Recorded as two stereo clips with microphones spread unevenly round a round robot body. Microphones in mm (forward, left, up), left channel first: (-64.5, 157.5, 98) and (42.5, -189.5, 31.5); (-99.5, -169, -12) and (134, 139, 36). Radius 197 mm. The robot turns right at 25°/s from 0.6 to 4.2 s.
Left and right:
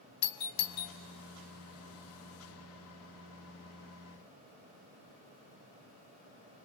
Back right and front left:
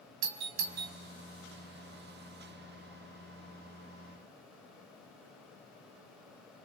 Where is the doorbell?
80° left, 1.8 m; by 0.9 s 85° left, 1.8 m.